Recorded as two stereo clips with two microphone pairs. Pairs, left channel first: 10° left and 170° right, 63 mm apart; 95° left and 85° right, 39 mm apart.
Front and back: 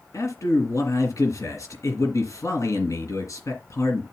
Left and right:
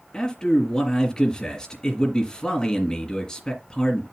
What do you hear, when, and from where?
0.1 s a man speaking: 25° left, 3.5 m